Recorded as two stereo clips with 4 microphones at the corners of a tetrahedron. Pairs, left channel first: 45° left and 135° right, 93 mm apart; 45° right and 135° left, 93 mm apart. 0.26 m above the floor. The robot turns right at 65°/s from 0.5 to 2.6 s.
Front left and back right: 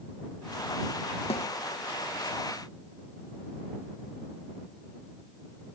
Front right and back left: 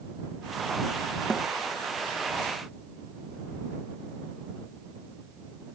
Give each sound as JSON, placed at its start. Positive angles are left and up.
{"t": 1.3, "sound": "a snare drum", "azimuth_deg": 40}